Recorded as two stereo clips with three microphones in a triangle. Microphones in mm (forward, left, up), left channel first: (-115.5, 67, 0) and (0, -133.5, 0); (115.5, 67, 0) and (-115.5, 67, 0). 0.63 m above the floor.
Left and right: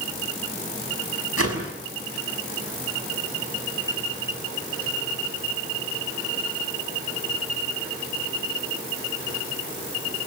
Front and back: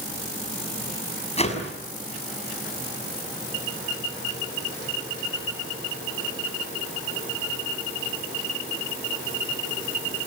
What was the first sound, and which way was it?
A whoosh, 65° right.